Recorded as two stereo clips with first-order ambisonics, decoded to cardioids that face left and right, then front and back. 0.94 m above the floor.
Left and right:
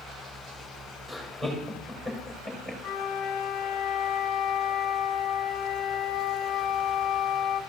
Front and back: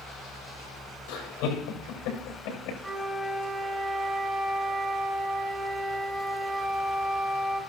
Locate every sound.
1.1 s laughter: 10° right, 5.5 m
2.8 s a flute: 100° left, 1.1 m